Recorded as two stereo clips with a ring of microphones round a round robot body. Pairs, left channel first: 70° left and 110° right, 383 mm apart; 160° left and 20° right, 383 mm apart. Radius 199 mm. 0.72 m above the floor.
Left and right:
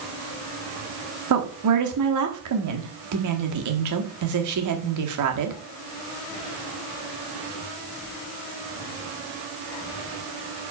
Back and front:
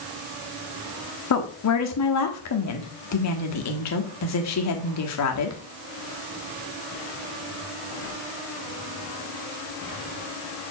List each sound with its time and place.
1.3 s a woman speaking: 155° right, 1.3 m